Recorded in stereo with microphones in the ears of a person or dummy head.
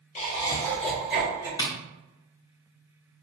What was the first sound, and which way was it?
Laughter, 40° left (ahead or behind).